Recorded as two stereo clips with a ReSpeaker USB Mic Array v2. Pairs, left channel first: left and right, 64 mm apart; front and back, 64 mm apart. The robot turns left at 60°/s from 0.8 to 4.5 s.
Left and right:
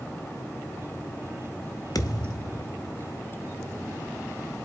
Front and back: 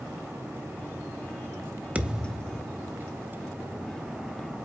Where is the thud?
110° left, 0.9 m; by 2.7 s 65° left, 0.9 m.